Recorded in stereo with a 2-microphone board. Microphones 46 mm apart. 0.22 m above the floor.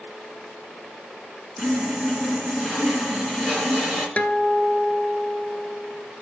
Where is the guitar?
35° left (ahead or behind), 0.9 m.